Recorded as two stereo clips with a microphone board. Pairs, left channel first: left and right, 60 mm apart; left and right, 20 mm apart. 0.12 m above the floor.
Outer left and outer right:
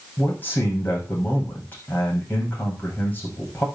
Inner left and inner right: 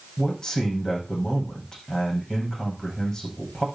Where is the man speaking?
30° left (ahead or behind), 6 m.